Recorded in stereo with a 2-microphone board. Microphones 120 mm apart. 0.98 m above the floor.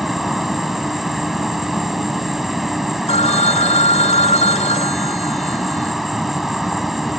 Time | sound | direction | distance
0.0 | an insect | centre (ahead or behind) | ?
3.1 | a phone ringing | 85° left | ?